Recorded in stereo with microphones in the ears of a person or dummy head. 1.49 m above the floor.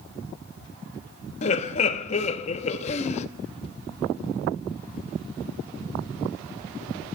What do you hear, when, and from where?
1.4 s laughter: 35° left (ahead or behind), 0.7 m